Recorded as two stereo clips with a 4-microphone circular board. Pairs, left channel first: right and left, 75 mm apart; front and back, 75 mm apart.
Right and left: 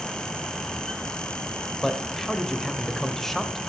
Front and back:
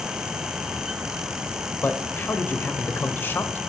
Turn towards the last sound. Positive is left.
turn(degrees=-10)